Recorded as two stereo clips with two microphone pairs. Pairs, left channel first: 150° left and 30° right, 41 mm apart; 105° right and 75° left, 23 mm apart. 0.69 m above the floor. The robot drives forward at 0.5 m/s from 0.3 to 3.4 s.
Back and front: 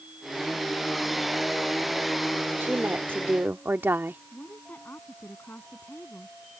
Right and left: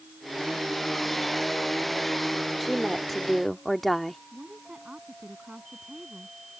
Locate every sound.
2.6 s a woman speaking: 20° right; by 4.2 s 25° right
4.3 s a woman speaking: 120° left